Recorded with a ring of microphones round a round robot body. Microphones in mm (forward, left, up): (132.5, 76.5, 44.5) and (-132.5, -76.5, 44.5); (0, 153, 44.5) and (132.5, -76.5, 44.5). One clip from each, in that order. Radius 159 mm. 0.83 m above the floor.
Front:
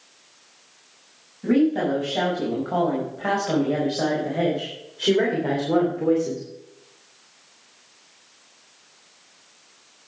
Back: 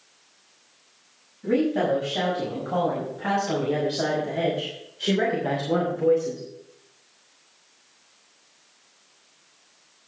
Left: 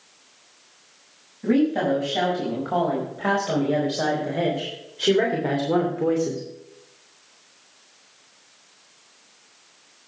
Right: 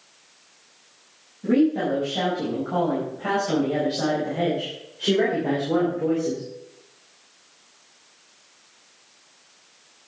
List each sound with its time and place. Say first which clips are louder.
1.4 s a woman speaking: front 2 dB, even; 100° left, 6 m